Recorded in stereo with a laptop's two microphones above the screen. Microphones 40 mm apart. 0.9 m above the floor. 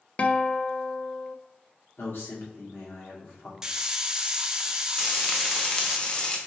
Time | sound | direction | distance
0.2 | a guitar | 35° left (ahead or behind) | 0.5 m
2.0 | a man speaking | 70° left (ahead or behind) | 1.9 m
3.6 | a hiss | 15° right (ahead or behind) | 0.6 m
5.0 | frying | 20° left (ahead or behind) | 0.7 m